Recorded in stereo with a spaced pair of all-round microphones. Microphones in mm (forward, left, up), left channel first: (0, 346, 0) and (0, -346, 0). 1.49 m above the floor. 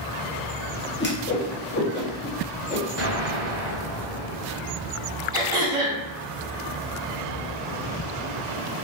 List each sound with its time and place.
1.0 s a whoosh: 15° left (ahead or behind), 0.7 m
3.0 s an explosion: 35° right (ahead or behind), 1.5 m
5.3 s throat clearing: 70° right (ahead or behind), 1.9 m